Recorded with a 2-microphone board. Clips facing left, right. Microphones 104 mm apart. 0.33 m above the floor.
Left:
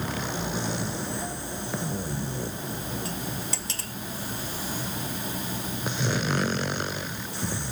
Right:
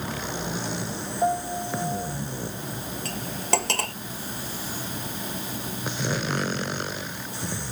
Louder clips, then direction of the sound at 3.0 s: Right 5 dB; 70° right (ahead or behind).